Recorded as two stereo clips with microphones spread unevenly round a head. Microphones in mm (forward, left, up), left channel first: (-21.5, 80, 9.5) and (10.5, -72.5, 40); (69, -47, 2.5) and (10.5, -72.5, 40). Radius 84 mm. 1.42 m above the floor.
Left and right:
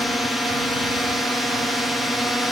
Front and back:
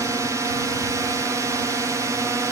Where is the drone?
155° left.